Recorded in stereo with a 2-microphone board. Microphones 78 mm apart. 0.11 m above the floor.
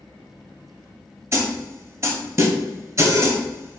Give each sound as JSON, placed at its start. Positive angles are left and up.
{"t": 1.3, "sound": "a snare drum", "side_deg": -35, "distance_m": 0.7}